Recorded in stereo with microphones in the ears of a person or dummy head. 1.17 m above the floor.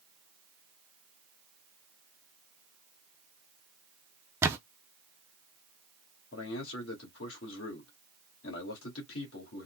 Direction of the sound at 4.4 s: 5° right (ahead or behind).